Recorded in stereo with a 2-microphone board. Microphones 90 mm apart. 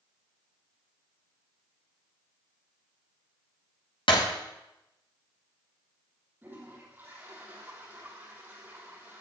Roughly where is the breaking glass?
Left.